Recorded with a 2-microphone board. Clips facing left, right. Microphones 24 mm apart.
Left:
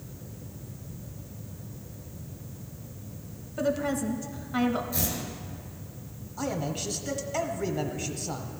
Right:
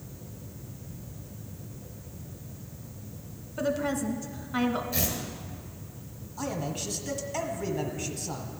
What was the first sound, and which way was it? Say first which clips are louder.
A woman speaking: left 1 dB; centre (ahead or behind).